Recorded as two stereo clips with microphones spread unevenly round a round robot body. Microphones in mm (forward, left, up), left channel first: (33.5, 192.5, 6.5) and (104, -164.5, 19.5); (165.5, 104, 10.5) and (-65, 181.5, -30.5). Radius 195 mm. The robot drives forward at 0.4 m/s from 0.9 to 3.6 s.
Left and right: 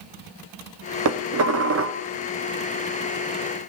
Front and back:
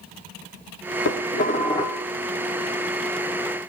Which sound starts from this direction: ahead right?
Dishes clattering, at 1.1 s.